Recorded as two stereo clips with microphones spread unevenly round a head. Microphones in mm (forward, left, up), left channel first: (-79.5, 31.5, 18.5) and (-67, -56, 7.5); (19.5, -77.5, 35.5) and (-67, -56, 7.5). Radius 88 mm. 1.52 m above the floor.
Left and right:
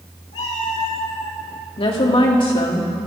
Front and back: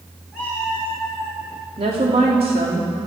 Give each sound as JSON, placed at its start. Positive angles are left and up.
{"t": 0.3, "sound": "a cat meowing", "azimuth_deg": 75, "distance_m": 4.0}
{"t": 1.8, "sound": "a woman speaking", "azimuth_deg": 115, "distance_m": 3.0}